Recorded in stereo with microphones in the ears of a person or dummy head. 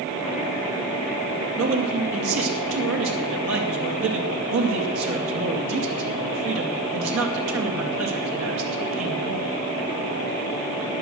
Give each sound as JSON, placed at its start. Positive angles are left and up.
{"t": 1.6, "sound": "a man speaking", "side_deg": -75, "distance_m": 2.5}